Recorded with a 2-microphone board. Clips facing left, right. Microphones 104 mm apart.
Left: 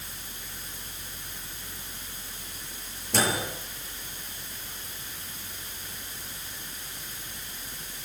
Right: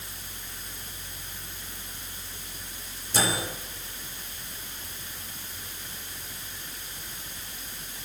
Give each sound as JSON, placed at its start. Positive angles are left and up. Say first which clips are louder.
{"t": 3.1, "sound": "a microwave", "louder": "left 1 dB", "side_deg": 80, "distance_m": 7.5}